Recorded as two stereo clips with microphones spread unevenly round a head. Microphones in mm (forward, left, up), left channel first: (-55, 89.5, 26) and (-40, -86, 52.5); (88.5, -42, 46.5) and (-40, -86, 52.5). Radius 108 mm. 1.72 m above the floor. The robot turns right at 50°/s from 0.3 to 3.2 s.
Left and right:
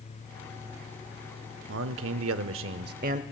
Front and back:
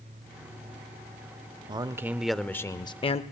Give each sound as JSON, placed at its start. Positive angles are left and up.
{"t": 1.7, "sound": "a man speaking", "azimuth_deg": -100, "distance_m": 0.6}